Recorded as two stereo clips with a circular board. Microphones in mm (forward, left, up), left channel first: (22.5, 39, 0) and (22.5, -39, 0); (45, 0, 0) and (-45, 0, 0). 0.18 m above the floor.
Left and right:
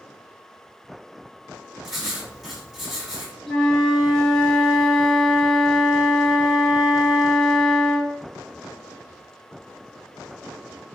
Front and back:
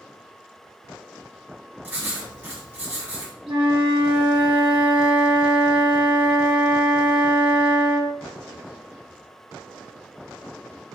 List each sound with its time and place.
1.8 s writing: 175° right, 1.2 m
3.5 s a flute: 170° left, 0.9 m